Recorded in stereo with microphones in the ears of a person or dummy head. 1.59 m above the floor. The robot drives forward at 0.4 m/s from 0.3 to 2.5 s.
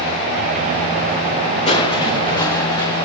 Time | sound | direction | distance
1.7 | crushing | 30° left (ahead or behind) | 0.5 m